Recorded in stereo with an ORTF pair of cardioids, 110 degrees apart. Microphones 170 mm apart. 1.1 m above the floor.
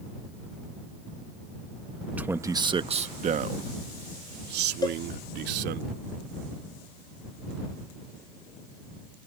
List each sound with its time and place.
2.2 s a man speaking: 10° right; by 5.8 s 80° right
4.8 s a cowbell: 20° left